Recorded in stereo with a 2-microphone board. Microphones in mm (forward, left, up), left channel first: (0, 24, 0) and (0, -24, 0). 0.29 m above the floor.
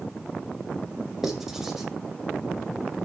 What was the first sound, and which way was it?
Writing, 10° right (ahead or behind).